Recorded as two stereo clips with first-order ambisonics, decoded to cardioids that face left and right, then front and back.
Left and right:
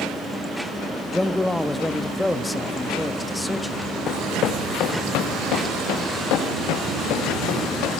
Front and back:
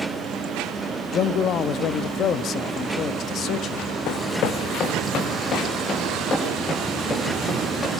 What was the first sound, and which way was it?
A man speaking, 5° left.